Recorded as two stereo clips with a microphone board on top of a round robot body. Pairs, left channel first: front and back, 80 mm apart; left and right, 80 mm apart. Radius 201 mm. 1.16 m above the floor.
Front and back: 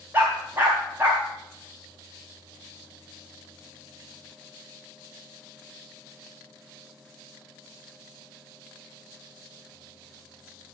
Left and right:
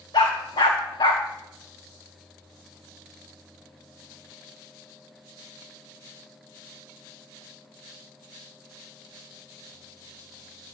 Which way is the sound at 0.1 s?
115° left.